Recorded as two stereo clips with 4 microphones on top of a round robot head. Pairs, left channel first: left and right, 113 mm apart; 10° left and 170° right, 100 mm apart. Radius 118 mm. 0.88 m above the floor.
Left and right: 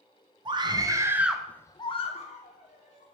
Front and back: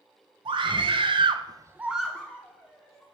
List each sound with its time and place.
0.5 s a scream: 135° right, 1.0 m; by 3.1 s 75° left, 1.3 m